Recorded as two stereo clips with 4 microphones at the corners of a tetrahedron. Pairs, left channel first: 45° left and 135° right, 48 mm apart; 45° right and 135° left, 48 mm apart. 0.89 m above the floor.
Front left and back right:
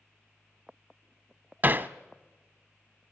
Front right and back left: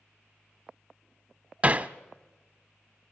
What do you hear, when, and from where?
1.6 s hammering: 170° right, 0.7 m